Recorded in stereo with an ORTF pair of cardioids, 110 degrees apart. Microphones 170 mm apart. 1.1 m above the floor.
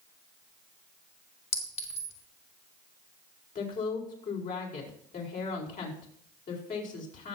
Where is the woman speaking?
50° left, 4.5 m.